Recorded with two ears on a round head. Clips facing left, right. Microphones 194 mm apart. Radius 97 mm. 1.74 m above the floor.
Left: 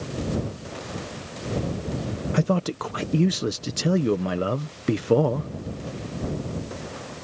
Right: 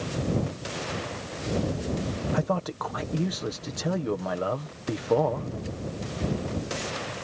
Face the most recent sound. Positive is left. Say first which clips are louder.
# left 6 dB
turn(degrees=35)  # may be behind; listen again after turning